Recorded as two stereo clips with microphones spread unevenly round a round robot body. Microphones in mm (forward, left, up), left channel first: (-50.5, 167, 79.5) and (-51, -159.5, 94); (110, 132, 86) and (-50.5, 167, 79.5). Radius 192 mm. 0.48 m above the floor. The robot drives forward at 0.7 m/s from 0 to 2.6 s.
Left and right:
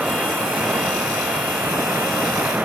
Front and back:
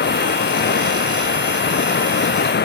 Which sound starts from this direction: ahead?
Running water, at 0.0 s.